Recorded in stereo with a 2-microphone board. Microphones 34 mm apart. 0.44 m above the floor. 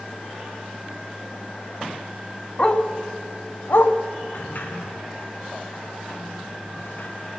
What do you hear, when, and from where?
2.6 s a dog barking: 25° left (ahead or behind), 1.0 m; by 3.9 s 85° left, 1.0 m
4.3 s a sliding door: 60° left (ahead or behind), 3 m